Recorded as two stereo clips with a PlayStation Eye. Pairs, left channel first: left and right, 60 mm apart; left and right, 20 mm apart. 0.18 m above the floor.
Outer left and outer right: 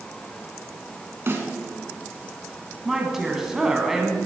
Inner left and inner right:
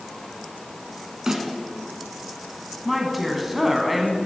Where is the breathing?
No breathing in this recording.